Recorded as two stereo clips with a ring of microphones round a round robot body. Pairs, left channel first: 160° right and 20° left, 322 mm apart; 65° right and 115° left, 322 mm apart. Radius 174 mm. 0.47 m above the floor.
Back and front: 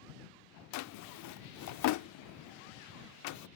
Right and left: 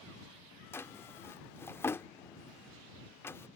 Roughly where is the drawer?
Behind right.